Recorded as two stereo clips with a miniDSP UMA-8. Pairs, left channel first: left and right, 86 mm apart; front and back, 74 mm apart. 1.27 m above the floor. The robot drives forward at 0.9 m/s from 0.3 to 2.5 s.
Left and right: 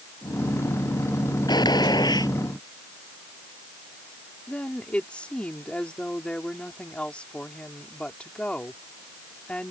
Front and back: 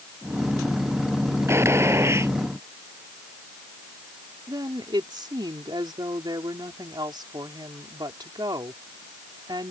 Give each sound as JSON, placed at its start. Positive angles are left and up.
{"t": 1.5, "sound": "a gunshot", "azimuth_deg": 125}
{"t": 4.5, "sound": "a woman speaking", "azimuth_deg": 165}